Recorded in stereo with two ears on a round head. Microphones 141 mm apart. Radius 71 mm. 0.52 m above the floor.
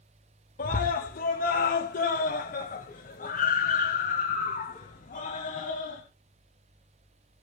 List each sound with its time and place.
0.6 s a scream: 55° left (ahead or behind), 1.4 m